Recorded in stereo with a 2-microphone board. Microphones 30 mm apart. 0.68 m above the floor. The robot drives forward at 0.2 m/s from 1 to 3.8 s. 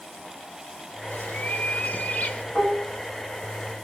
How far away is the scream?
No scream in this recording.